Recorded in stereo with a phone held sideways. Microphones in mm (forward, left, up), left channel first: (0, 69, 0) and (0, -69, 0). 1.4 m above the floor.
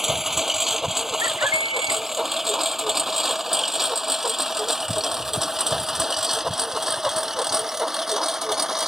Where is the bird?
25° right (ahead or behind).